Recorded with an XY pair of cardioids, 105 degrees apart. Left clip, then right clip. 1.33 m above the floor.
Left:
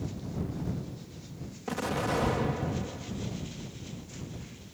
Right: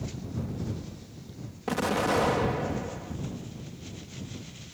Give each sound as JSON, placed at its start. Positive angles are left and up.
{"t": 1.7, "sound": "an explosion", "azimuth_deg": -30}